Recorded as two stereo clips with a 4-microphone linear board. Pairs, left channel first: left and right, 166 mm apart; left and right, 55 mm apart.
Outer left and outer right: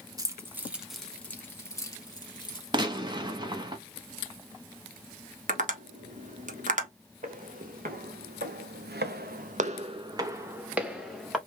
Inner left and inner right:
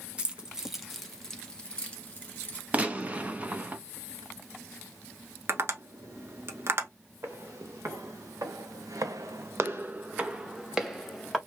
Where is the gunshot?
25° right (ahead or behind), 0.8 m.